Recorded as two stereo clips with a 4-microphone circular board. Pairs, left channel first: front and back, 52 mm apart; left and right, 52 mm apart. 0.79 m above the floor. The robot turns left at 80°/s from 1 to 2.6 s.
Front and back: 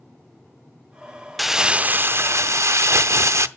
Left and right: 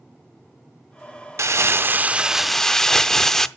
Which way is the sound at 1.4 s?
90° right.